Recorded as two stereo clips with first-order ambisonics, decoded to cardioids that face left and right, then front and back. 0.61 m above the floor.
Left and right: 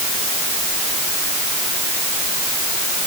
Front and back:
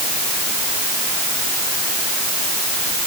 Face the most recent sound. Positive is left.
No sound to turn to.